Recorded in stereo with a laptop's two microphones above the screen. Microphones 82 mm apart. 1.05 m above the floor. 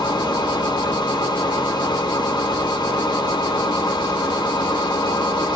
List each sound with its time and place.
0.0 s a machine running: 65° left (ahead or behind), 0.9 m